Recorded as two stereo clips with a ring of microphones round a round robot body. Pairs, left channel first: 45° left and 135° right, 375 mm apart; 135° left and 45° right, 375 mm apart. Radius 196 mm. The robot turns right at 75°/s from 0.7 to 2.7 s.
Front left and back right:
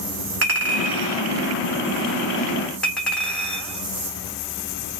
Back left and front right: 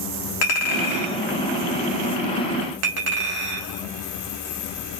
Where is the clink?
165° left, 1.4 m; by 5.0 s 45° right, 1.4 m.